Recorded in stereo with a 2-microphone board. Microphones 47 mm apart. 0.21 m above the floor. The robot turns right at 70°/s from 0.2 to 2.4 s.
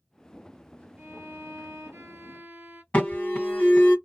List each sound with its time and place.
1.0 s a violin: 150° right, 1.0 m; by 2.8 s 50° right, 1.0 m
2.9 s an alarm: 30° left (ahead or behind), 2 m